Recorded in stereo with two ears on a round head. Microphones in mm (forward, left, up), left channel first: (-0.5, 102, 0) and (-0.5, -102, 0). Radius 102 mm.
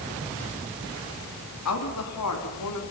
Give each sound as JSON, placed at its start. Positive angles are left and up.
{"t": 1.6, "sound": "a woman speaking", "side_deg": 85, "distance_m": 3.0}